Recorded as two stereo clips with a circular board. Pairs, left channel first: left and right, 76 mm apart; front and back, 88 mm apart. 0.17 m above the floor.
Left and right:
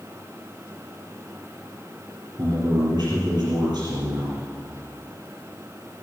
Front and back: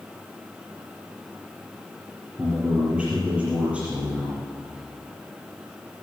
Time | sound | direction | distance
2.4 | a man speaking | 105° right | 5 m